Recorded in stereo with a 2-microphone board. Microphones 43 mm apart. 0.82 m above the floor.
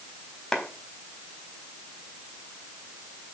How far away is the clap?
About 4 m.